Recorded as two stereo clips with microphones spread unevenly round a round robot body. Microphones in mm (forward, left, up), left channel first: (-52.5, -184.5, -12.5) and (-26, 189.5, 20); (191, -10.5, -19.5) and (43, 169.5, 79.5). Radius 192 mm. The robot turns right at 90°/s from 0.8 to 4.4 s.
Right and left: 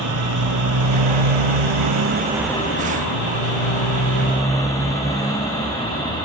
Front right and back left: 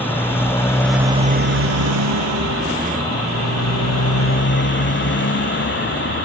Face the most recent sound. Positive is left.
turn(degrees=-15)